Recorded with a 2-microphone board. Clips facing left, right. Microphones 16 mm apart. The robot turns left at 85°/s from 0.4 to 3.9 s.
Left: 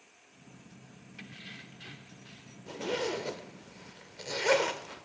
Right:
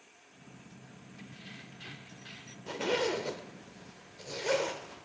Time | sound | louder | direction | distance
1.2 | keys jangling | left 3 dB | 50° left | 0.6 m
2.7 | a zipper | right 2 dB | 50° right (ahead or behind) | 1.0 m